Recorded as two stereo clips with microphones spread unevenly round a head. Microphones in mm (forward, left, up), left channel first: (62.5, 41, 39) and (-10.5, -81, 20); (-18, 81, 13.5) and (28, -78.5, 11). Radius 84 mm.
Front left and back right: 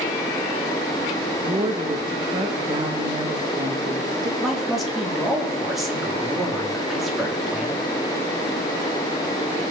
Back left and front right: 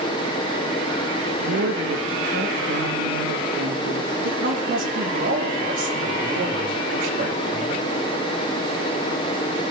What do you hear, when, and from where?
1.4 s a woman speaking: 60° right, 1.6 m
4.4 s a man speaking: 30° right, 3.5 m